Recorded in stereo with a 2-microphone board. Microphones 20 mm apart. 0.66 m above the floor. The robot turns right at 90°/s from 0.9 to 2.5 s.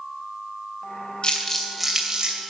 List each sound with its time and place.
1.2 s crumpling: 50° left (ahead or behind), 2.5 m; by 2.4 s 55° right (ahead or behind), 2.5 m